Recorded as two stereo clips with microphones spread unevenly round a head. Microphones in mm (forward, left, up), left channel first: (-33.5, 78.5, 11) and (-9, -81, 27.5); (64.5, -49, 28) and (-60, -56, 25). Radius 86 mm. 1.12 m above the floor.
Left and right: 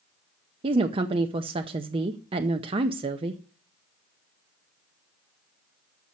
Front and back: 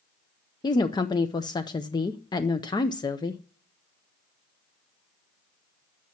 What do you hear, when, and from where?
0.6 s a woman speaking: 35° right, 0.6 m